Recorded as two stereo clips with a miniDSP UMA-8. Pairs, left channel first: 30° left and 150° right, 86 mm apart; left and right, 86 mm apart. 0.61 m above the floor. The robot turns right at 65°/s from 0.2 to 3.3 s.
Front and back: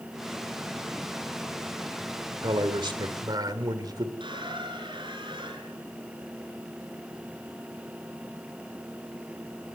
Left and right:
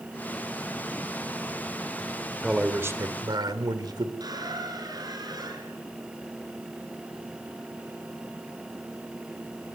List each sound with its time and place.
2.4 s a man speaking: 175° right, 1.9 m; by 4.1 s 120° right, 1.9 m
4.2 s a squeak: 130° right, 5 m